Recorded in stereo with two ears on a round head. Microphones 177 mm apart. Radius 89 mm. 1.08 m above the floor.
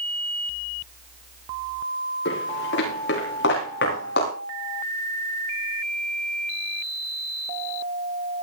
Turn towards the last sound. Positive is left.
turn(degrees=60)  # may be behind; listen again after turning